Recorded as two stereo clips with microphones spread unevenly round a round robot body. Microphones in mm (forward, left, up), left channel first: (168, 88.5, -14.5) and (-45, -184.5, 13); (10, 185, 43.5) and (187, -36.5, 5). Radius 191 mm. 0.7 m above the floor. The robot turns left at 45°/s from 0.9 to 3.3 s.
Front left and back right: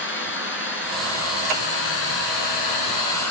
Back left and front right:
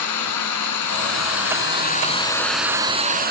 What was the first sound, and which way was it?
Running water, 115° left.